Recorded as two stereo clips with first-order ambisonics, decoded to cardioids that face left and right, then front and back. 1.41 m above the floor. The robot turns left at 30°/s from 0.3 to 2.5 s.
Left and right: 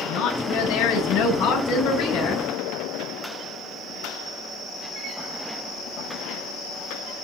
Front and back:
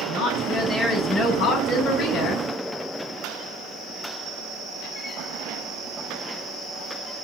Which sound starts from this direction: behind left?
A woman speaking, at 0.1 s.